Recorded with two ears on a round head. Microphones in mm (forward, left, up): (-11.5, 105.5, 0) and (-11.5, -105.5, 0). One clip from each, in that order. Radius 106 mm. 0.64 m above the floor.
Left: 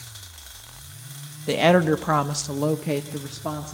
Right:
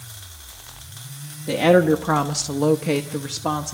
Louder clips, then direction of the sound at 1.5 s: Right 2 dB; 30° left (ahead or behind).